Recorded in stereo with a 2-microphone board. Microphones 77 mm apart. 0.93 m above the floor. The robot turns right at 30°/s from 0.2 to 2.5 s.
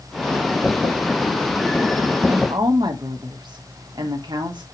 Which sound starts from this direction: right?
A woman speaking, at 2.3 s.